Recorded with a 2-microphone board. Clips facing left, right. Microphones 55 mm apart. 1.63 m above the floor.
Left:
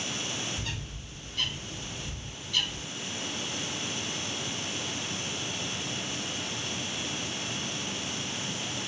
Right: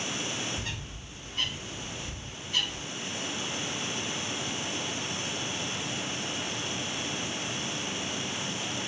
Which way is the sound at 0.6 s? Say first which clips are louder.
Even; 40° right (ahead or behind).